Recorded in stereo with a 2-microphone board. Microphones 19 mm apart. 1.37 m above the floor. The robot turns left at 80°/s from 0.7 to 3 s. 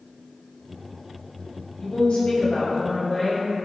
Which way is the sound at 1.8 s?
115° left.